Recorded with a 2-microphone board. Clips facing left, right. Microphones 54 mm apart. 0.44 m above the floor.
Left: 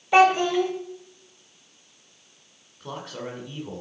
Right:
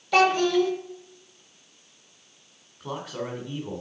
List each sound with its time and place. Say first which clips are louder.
0.1 s a child speaking: left 2 dB; 20° left (ahead or behind), 1.3 m
2.8 s a man speaking: right 2 dB; centre (ahead or behind), 1.8 m